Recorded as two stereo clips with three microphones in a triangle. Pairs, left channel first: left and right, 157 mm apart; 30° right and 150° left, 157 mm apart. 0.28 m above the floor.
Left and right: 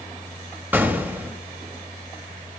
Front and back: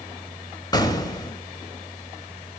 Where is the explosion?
30° right, 0.8 m.